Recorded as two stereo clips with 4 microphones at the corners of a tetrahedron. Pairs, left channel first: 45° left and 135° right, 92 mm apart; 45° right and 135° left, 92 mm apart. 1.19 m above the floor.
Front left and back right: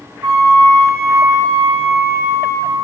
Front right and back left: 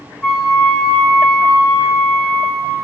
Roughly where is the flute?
Behind right.